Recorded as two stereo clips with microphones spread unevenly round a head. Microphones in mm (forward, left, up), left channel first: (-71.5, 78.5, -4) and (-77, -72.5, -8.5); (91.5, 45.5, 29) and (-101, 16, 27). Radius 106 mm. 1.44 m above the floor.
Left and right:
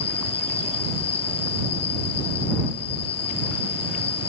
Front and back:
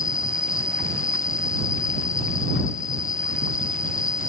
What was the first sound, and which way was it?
An insect, 60° left.